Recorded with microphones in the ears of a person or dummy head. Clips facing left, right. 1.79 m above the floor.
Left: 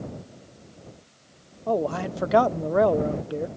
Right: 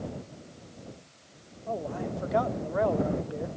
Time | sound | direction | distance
1.7 | a man speaking | 80° left | ?